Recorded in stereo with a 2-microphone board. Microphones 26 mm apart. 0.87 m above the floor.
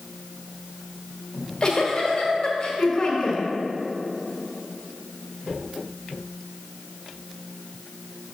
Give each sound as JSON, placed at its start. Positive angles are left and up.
{"t": 1.3, "sound": "a giggle", "side_deg": 30, "distance_m": 1.4}